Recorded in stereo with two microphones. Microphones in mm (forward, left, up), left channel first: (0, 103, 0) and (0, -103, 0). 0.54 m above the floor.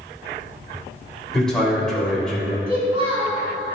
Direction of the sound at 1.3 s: 5° left (ahead or behind).